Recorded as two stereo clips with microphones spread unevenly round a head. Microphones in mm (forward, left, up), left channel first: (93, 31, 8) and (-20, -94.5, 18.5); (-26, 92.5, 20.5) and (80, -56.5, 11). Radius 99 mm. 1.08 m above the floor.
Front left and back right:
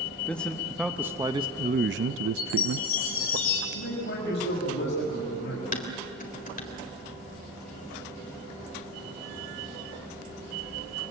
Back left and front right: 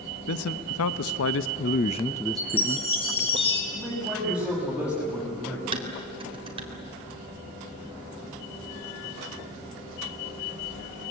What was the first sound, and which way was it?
A man speaking, 130° left.